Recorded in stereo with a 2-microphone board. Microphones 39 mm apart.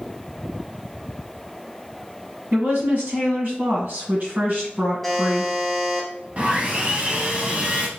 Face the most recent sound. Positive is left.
turn(degrees=-40)  # may be behind; listen again after turning